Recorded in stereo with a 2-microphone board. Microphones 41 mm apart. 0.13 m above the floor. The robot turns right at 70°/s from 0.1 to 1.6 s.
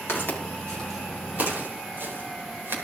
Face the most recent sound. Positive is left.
turn(degrees=-60)  # may be behind; listen again after turning